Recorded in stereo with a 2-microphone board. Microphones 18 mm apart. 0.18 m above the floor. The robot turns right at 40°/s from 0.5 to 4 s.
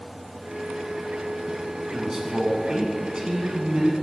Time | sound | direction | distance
1.9 | a man speaking | 135° right | 1.2 m